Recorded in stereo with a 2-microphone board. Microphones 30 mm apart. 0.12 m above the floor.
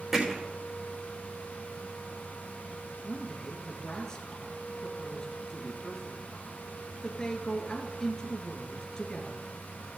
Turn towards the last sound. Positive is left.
turn(degrees=25)  # may be behind; listen again after turning